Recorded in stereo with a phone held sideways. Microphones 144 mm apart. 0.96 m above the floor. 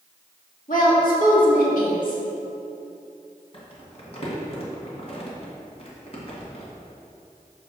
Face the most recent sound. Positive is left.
turn(degrees=45)  # may be behind; listen again after turning